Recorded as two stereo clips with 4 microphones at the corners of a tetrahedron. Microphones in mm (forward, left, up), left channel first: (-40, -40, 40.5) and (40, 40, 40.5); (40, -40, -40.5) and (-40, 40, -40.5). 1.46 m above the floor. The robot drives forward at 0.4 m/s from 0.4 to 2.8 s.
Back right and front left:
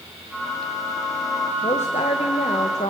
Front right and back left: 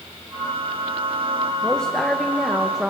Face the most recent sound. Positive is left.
turn(degrees=-140)